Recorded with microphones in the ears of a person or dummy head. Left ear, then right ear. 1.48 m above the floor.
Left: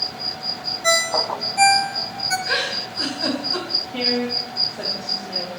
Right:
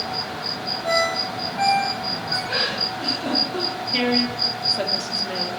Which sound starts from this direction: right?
A woman speaking, at 3.9 s.